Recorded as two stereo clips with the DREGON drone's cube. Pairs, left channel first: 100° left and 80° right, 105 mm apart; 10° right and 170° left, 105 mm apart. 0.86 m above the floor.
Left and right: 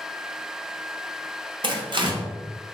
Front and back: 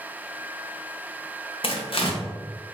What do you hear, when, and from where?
1.6 s tearing paper: 40° right, 0.7 m